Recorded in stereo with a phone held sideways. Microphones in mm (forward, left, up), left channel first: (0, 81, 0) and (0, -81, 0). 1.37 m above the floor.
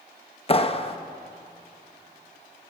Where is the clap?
35° left (ahead or behind), 1.0 m.